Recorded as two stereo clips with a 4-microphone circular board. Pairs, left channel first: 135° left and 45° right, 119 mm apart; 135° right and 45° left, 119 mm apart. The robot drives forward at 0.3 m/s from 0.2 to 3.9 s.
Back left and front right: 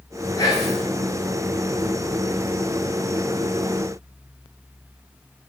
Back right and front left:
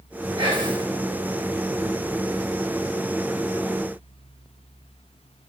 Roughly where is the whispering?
Left.